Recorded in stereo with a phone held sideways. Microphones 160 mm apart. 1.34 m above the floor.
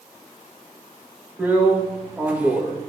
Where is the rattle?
No rattle in this recording.